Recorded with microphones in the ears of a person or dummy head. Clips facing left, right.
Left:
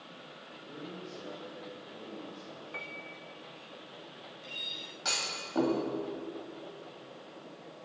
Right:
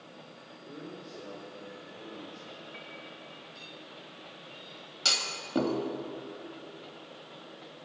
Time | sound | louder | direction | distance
0.6 | a man speaking | even | 15° right (ahead or behind) | 3.5 m
2.7 | a piano | left 1 dB | 70° left (ahead or behind) | 1.3 m
5.0 | a clunk | right 1 dB | 45° right (ahead or behind) | 1.9 m